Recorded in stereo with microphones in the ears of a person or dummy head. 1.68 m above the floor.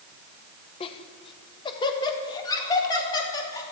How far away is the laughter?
About 1.1 m.